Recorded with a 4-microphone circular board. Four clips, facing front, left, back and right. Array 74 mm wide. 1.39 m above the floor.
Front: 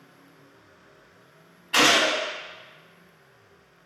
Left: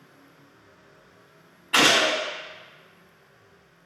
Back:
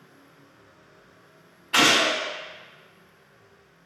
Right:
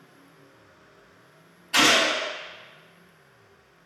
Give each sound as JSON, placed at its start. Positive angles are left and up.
{"t": 1.7, "sound": "a gunshot", "azimuth_deg": 90, "distance_m": 1.4}